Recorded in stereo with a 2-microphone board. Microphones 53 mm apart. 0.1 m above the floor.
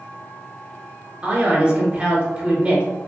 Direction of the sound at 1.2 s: 20° right (ahead or behind).